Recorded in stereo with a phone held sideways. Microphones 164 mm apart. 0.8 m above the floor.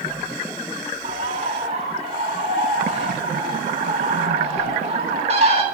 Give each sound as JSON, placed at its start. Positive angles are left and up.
{"t": 1.0, "sound": "a bird", "side_deg": -40, "distance_m": 1.6}